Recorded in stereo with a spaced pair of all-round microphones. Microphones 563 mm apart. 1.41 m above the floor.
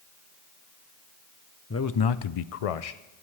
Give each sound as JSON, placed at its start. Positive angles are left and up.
{"t": 1.7, "sound": "a man speaking", "side_deg": 25, "distance_m": 0.5}